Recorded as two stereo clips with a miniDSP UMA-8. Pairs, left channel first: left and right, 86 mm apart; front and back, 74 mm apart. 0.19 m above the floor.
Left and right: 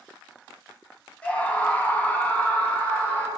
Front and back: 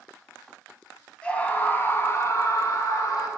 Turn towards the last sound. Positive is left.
turn(degrees=20)